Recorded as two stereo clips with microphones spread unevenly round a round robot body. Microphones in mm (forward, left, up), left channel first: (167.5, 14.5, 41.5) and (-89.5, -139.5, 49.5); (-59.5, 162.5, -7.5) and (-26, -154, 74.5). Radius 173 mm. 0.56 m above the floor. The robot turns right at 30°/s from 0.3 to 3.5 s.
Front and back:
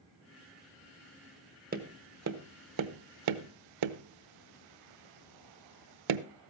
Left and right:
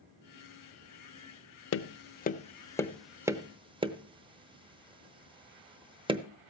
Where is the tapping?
145° left, 0.7 m; by 6.2 s 160° right, 0.7 m.